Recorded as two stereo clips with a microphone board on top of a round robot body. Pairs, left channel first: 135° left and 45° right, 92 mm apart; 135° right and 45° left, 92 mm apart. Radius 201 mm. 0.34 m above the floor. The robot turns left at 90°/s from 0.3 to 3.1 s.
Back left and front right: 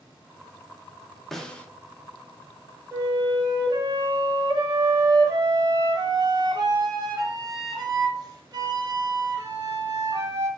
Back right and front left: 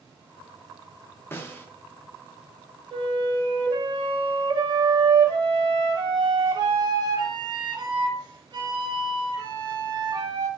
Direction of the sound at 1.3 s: 140° right.